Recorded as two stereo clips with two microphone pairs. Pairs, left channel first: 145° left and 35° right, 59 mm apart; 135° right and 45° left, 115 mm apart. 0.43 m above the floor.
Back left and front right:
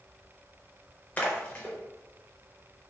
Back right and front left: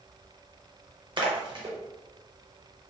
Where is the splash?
80° left, 0.6 m.